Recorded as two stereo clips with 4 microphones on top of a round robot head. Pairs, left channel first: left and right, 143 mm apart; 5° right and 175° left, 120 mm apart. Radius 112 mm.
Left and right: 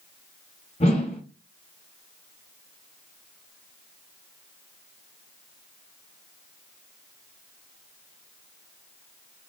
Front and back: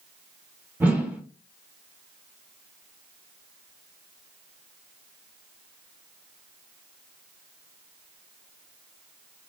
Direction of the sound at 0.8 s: 105° left.